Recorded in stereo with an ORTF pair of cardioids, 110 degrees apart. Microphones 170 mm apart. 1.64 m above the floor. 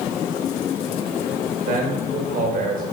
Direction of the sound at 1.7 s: 55° right.